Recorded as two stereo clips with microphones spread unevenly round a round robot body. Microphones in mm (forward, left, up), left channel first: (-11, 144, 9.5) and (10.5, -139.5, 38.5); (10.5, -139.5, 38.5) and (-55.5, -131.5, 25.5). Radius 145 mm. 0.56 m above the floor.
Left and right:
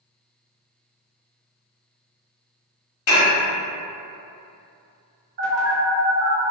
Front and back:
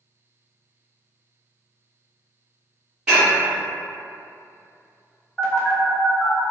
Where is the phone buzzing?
90° right, 1.8 m.